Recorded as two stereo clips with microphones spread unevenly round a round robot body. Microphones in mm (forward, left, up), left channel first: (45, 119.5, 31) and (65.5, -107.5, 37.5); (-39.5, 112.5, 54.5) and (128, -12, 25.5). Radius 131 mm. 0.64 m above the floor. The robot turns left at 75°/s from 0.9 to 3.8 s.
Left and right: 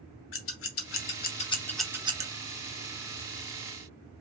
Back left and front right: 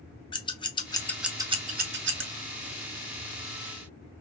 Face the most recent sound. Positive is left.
turn(degrees=-145)